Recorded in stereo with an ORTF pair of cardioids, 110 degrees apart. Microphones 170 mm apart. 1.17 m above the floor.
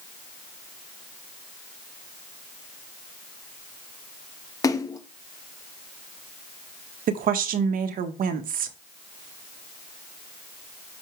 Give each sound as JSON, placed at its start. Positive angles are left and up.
{"t": 4.6, "sound": "a splash", "azimuth_deg": 20, "distance_m": 1.0}
{"t": 7.1, "sound": "a woman speaking", "azimuth_deg": -60, "distance_m": 1.4}